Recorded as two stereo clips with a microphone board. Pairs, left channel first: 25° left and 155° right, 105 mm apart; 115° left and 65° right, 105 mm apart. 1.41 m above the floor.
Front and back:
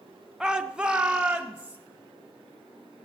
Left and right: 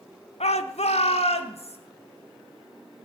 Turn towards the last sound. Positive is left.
turn(degrees=125)